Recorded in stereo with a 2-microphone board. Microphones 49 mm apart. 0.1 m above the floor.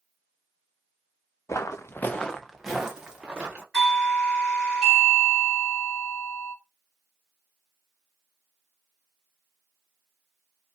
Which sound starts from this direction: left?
Footsteps, at 1.5 s.